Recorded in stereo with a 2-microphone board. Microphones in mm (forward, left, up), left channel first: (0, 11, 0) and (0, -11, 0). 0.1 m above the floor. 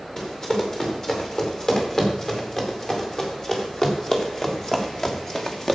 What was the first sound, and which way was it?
Running footsteps, 30° left (ahead or behind).